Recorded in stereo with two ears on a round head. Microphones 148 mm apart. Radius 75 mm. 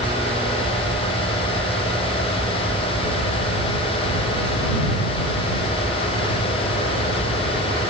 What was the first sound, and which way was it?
Only background noise.